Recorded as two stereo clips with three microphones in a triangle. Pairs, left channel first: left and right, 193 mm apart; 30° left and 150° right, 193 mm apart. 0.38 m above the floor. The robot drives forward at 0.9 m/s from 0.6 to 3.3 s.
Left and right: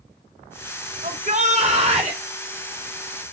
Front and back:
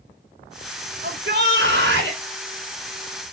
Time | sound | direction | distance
1.0 | a shout | 135° right | 3.5 m